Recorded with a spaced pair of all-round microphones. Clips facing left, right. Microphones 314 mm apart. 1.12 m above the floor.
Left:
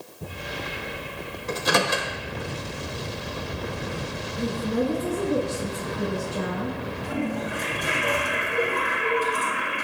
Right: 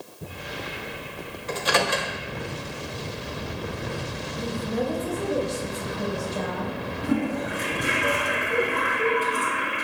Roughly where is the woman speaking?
Left.